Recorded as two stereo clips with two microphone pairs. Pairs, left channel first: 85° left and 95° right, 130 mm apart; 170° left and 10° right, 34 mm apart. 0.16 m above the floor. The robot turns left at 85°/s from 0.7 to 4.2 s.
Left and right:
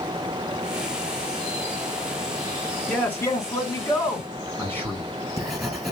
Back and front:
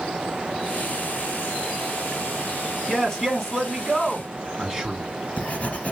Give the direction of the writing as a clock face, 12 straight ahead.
6 o'clock.